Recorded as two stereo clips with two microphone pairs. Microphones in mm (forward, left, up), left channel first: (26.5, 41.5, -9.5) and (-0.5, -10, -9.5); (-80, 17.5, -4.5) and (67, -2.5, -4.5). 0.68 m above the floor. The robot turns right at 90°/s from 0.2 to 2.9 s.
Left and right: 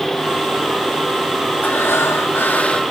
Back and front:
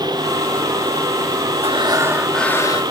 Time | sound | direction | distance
1.6 | breathing | 20° left | ?